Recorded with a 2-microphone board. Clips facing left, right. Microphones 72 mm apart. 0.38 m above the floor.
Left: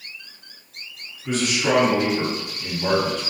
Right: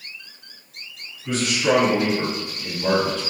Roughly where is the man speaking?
Left.